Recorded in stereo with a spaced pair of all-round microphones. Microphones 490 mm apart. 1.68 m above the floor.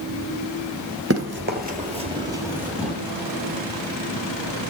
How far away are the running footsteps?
About 1.8 m.